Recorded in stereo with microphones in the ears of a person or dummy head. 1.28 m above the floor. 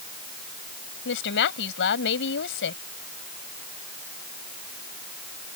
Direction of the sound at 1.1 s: 65° left (ahead or behind).